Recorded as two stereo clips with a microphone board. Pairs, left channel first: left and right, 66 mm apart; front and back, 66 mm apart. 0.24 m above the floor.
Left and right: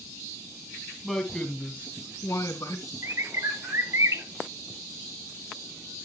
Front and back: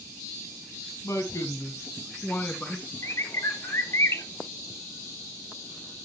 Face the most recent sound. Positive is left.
turn(degrees=-45)